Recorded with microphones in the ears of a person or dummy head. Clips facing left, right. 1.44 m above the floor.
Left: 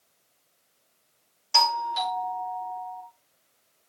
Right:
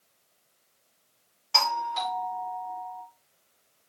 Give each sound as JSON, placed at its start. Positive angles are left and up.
{"t": 1.5, "sound": "a doorbell", "side_deg": 5, "distance_m": 1.3}